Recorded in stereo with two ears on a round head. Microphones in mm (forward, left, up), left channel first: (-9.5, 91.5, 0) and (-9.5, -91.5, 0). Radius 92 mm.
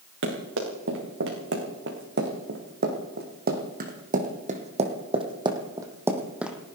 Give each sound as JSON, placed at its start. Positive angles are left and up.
{"t": 0.2, "sound": "running footsteps", "side_deg": -70, "distance_m": 5.0}